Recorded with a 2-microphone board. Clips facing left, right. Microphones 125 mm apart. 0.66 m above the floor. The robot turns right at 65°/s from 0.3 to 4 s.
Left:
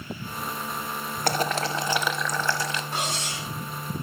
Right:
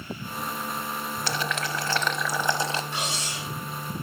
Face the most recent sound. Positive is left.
turn(degrees=120)